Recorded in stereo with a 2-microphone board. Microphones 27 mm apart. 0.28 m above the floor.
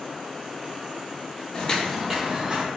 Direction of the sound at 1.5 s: 35° left (ahead or behind).